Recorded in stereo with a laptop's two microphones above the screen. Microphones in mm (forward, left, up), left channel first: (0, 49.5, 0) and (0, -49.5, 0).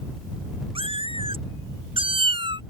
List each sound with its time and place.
0.8 s a cat meowing: 65° right (ahead or behind); by 2.6 s 60° right (ahead or behind)